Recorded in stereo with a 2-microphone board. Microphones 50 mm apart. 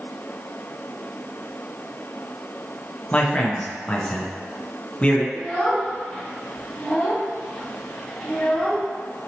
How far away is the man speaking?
About 0.7 m.